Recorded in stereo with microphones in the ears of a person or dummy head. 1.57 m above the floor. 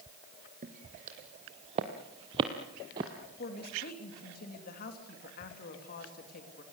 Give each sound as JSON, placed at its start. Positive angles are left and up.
{"t": 0.6, "sound": "footsteps", "side_deg": -45, "distance_m": 2.5}
{"t": 3.4, "sound": "a woman speaking", "side_deg": 45, "distance_m": 3.0}